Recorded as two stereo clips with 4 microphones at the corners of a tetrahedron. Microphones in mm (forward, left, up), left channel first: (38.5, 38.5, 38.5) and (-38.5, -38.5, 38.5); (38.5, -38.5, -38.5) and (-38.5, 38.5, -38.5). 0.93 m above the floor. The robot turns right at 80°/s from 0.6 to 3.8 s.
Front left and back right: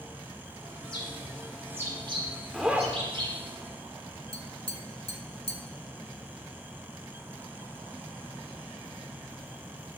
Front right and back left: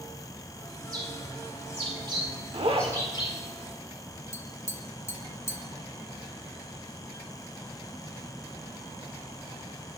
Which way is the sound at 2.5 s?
130° left.